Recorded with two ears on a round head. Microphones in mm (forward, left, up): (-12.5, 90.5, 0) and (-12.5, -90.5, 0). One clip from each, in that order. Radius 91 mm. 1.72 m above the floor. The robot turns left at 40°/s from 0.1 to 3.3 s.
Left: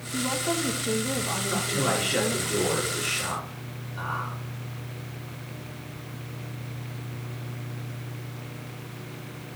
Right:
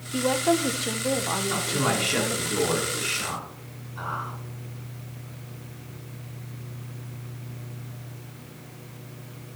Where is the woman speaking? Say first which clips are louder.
Right 5 dB; 95° right, 1.3 m; by 2.5 s 175° left, 1.3 m.